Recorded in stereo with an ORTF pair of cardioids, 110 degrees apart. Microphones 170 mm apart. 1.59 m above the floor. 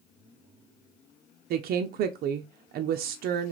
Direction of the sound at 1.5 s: 65° right.